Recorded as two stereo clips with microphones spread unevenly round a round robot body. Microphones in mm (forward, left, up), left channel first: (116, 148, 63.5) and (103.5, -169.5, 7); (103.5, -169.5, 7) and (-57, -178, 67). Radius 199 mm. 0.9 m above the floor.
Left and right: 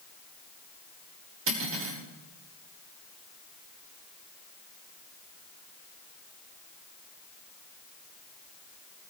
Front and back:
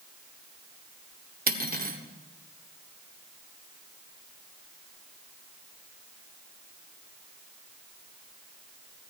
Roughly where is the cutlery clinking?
Behind right.